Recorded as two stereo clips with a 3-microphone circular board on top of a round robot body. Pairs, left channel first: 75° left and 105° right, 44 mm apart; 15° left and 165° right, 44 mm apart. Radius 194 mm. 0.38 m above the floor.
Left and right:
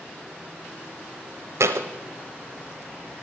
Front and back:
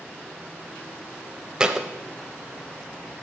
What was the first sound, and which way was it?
A thud, 90° right.